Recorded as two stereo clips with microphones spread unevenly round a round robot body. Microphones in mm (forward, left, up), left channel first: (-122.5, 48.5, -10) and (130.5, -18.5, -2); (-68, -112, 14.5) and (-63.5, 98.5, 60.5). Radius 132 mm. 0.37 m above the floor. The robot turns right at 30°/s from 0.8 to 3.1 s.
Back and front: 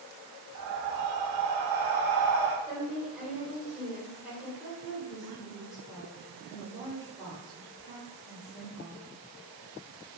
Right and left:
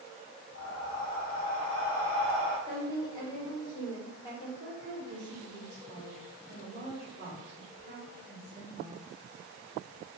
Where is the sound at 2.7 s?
115° right, 1.2 m; by 4.5 s 100° right, 1.2 m.